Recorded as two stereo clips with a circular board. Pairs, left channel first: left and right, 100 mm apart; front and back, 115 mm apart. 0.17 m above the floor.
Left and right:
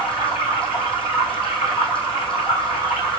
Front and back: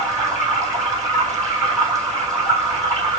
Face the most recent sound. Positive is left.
turn(degrees=120)